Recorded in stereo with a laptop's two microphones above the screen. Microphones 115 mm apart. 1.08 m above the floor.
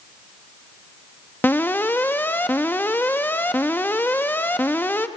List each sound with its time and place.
1.4 s an alarm: 20° left (ahead or behind), 0.7 m